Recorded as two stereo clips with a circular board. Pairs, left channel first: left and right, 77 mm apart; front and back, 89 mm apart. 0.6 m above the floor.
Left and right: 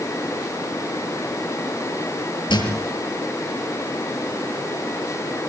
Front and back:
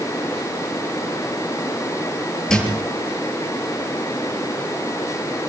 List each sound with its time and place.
2.5 s a thud: 85° left, 6.5 m